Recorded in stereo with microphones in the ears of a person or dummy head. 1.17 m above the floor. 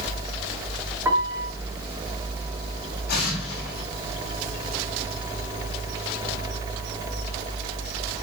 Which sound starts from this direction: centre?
A piano, at 1.1 s.